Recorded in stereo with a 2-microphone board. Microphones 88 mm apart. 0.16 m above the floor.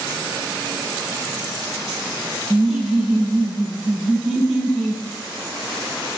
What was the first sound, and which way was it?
Laughter, 5° right (ahead or behind).